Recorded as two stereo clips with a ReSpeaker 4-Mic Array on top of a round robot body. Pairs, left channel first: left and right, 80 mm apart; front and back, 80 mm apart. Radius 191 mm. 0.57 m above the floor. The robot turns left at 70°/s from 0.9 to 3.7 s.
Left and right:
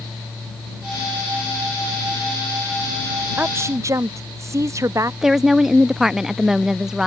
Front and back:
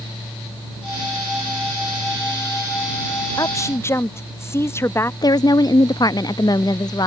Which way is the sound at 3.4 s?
25° right.